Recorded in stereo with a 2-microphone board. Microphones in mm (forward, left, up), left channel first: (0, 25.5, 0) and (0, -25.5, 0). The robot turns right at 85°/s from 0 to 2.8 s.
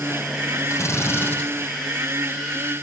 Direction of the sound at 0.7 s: 85° left.